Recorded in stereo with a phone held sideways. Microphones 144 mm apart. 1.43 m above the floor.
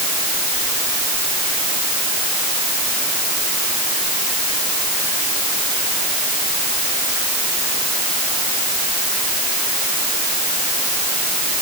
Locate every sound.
Only background noise.